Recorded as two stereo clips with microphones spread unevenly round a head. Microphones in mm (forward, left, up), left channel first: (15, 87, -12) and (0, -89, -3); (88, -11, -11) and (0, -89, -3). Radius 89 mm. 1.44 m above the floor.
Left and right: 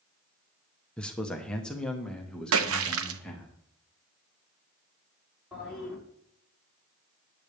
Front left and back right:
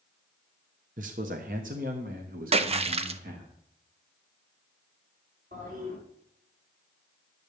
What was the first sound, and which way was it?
A man speaking, 170° left.